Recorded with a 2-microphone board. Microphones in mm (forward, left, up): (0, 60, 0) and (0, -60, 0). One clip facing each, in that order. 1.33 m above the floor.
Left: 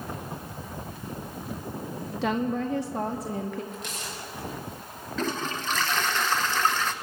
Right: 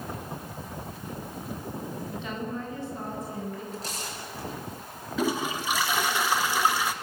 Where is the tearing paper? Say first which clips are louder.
Right 1 dB; 35° right (ahead or behind), 5.5 m.